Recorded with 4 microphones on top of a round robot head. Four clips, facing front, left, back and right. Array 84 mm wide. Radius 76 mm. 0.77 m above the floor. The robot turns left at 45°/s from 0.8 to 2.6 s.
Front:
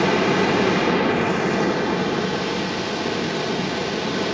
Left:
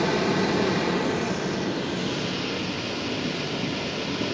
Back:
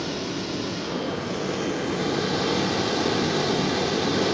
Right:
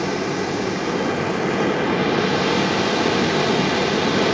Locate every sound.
0.0 s running water: 10° right, 0.8 m; by 4.3 s 90° right, 0.8 m